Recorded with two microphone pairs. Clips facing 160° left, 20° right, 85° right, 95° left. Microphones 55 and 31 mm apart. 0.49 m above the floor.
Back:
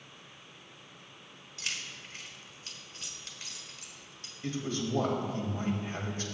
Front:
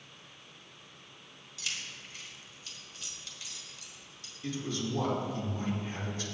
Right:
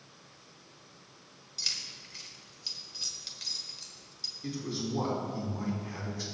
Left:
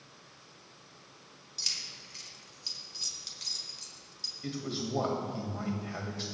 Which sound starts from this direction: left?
A man speaking, at 4.4 s.